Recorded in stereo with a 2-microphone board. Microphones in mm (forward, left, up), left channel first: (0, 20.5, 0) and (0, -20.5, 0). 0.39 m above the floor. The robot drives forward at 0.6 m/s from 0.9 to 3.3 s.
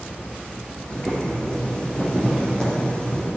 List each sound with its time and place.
0.9 s boiling: 25° left (ahead or behind), 3.5 m; by 3.3 s 20° left (ahead or behind), 4.5 m